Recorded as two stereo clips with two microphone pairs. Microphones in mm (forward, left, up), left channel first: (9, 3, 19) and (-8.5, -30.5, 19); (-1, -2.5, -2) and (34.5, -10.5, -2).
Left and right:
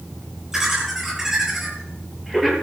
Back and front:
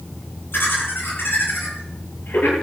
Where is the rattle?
No rattle in this recording.